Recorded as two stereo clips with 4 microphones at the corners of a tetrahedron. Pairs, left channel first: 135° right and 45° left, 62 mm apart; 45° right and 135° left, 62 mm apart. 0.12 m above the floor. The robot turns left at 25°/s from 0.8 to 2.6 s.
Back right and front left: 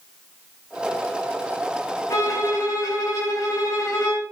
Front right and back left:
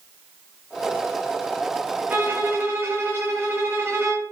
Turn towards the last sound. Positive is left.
turn(degrees=-170)